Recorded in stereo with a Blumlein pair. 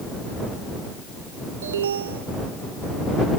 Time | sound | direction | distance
1.6 | an alarm | 65° right | ?